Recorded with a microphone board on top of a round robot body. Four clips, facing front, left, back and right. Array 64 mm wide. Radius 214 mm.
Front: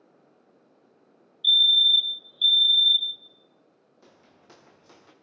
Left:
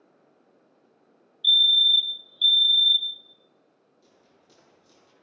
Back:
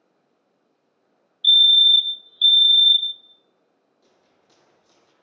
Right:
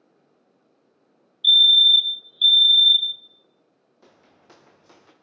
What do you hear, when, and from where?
1.4 s a fire alarm: 150° right, 1.7 m
4.0 s footsteps: 60° right, 4.5 m; by 5.1 s 55° right, 4 m